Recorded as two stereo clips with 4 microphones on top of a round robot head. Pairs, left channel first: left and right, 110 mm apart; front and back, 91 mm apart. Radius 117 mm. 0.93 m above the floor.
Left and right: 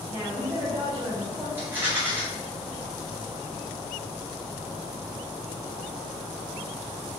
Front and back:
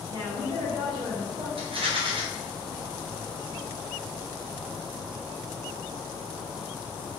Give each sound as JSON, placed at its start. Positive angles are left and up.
{"t": 0.1, "sound": "a woman speaking", "azimuth_deg": -170, "distance_m": 2.0}
{"t": 1.6, "sound": "a rattle", "azimuth_deg": -160, "distance_m": 1.4}